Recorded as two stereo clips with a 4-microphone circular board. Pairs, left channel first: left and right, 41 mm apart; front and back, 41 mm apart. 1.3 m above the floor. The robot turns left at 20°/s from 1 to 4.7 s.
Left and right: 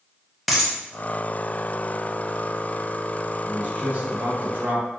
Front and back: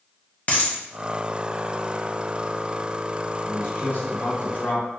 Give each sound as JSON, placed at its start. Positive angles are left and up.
{"t": 0.5, "sound": "a dropped coin", "azimuth_deg": 0, "distance_m": 0.7}
{"t": 3.5, "sound": "a man speaking", "azimuth_deg": -25, "distance_m": 1.0}